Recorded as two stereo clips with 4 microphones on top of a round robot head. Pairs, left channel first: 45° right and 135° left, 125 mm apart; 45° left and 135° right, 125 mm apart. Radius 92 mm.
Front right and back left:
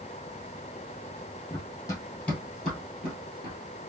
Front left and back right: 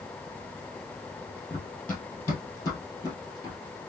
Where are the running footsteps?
20° right, 1.7 m; by 3.6 s 80° left, 1.7 m.